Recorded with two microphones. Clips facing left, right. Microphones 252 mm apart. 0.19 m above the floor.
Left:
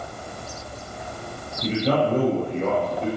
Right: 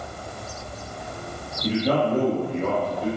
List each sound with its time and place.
1.6 s a man speaking: 25° left (ahead or behind), 4.5 m